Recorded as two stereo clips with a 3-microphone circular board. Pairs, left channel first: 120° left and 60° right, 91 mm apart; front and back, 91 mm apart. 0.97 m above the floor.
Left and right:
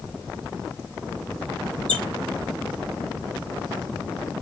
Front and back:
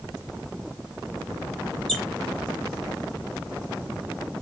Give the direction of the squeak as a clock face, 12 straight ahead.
3 o'clock.